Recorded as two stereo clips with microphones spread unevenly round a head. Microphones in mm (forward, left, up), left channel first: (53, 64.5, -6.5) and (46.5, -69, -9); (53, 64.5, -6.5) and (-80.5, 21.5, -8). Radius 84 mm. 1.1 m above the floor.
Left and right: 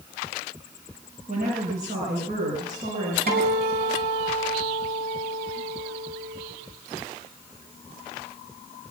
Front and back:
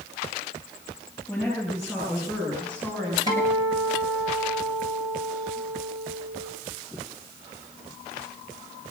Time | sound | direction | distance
1.3 | a woman speaking | 80° right | 5.5 m
3.3 | a guitar | 95° right | 5 m